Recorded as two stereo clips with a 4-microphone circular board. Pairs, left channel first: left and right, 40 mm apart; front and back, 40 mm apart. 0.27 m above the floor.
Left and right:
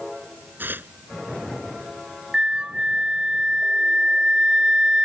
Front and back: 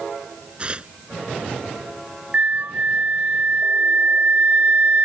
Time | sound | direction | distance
0.6 | tearing paper | 120° right | ?
2.3 | a flute | 150° right | ?